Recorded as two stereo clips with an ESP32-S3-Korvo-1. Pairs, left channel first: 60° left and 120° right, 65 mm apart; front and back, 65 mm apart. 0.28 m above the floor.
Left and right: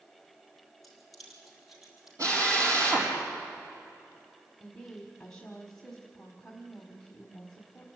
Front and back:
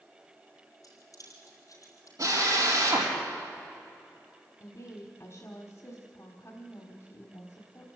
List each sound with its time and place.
0.8 s keys jangling: 25° right, 5 m; by 2.1 s 35° right, 5.5 m
2.2 s a drill: 155° right, 6 m
4.6 s a woman speaking: 20° right, 1.7 m